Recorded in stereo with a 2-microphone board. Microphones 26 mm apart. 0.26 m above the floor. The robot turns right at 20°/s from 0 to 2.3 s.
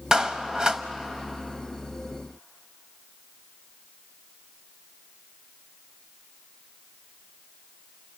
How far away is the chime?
No chime in this recording.